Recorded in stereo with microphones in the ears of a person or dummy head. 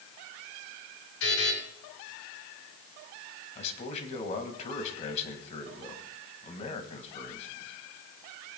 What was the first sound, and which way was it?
A buzzer, 70° left (ahead or behind).